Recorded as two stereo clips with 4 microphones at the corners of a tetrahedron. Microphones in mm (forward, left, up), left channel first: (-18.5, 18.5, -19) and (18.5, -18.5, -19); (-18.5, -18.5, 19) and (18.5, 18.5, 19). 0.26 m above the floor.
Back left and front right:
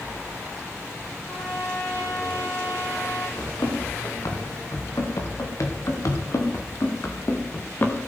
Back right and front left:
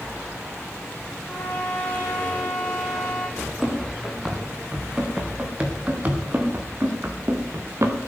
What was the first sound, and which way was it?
A trumpet, 165° left.